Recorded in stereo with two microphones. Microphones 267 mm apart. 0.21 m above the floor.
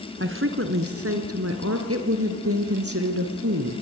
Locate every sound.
0.2 s a woman speaking: 45° right (ahead or behind), 1.9 m; by 1.8 s 65° right (ahead or behind), 3.5 m
1.9 s a woman speaking: 60° right (ahead or behind), 3 m